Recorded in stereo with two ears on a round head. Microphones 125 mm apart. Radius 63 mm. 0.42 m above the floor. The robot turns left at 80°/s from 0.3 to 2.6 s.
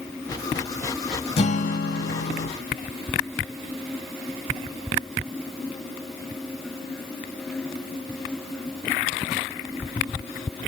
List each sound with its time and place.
1.4 s a guitar: 135° left, 0.8 m; by 2.5 s 40° left, 0.8 m